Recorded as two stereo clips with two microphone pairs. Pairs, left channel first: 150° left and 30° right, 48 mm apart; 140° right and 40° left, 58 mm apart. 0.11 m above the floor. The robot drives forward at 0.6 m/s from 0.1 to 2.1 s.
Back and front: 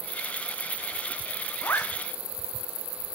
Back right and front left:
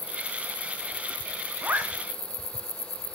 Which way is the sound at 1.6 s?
100° left.